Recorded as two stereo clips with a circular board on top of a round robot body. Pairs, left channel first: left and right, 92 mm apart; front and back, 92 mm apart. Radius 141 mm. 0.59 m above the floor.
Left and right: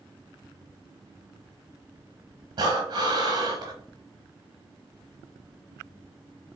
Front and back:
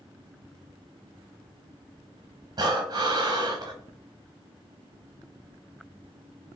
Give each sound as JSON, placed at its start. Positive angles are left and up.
{"t": 2.6, "sound": "breathing", "azimuth_deg": -130, "distance_m": 0.5}